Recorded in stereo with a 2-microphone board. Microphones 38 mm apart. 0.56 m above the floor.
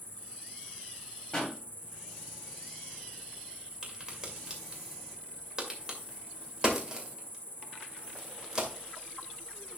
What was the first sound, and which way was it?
An insect, 45° right (ahead or behind).